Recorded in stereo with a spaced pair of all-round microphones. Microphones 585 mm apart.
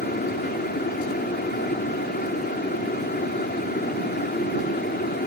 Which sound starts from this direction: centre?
A fan, at 0.0 s.